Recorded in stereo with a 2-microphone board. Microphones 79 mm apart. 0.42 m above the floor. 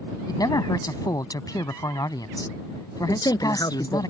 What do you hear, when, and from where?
0.3 s a man speaking: 55° left (ahead or behind)
3.1 s a man speaking: 55° left (ahead or behind)